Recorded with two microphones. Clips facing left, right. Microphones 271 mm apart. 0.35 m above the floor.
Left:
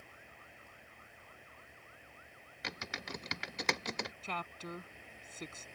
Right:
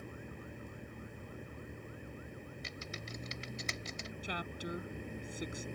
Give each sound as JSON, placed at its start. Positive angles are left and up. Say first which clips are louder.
{"t": 0.0, "sound": "a vehicle", "louder": "right 13 dB", "side_deg": -55}
{"t": 2.6, "sound": "typing on a keyboard", "louder": "even", "side_deg": 80}
{"t": 4.2, "sound": "a woman speaking", "louder": "right 3 dB", "side_deg": -15}